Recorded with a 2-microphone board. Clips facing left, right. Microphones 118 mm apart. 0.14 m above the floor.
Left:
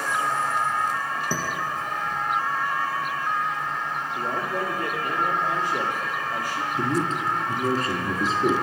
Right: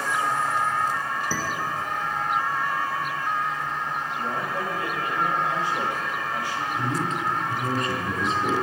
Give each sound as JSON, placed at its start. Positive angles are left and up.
{"t": 1.3, "sound": "dishes clattering", "side_deg": 15, "distance_m": 1.4}
{"t": 4.2, "sound": "a man speaking", "side_deg": 45, "distance_m": 2.5}
{"t": 6.8, "sound": "a man speaking", "side_deg": 35, "distance_m": 1.3}